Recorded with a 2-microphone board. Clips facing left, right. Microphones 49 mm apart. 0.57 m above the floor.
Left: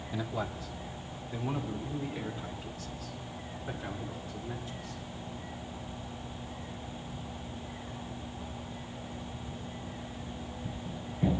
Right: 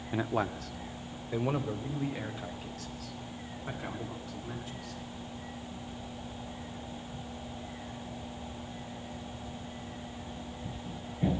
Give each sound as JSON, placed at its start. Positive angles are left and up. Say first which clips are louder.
{"t": 0.1, "sound": "a man speaking", "louder": "right 5 dB", "side_deg": -35, "distance_m": 0.7}